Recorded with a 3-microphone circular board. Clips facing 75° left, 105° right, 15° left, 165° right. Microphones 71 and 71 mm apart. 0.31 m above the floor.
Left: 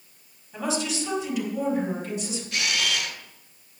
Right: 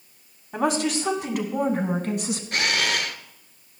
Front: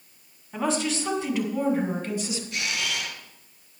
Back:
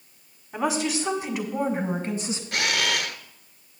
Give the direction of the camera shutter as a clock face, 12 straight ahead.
5 o'clock.